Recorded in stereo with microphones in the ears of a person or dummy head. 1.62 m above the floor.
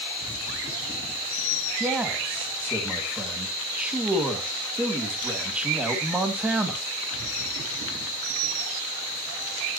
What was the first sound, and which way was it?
A man speaking, 5° right (ahead or behind).